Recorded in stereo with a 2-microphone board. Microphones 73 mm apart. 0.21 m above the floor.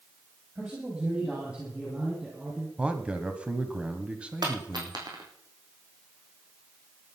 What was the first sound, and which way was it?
A man speaking, 20° right (ahead or behind).